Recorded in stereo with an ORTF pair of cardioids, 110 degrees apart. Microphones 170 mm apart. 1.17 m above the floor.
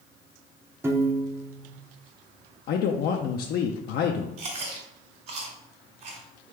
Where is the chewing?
60° right, 1.9 m.